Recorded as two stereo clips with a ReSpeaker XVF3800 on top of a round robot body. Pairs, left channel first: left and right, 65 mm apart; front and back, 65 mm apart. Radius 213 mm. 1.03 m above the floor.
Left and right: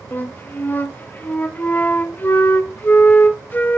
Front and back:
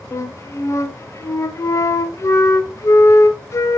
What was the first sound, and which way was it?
A flute, 35° left.